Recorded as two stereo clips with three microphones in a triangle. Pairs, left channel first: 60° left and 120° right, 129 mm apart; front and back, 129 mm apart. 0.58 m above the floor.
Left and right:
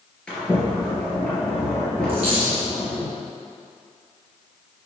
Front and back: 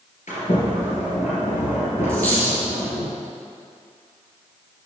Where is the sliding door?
25° right, 3 m.